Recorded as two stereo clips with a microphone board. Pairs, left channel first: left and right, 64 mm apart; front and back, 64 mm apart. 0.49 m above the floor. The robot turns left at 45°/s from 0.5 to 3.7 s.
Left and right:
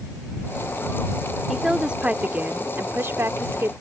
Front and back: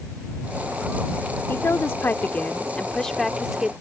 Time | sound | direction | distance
1.5 | a woman speaking | 5° right | ?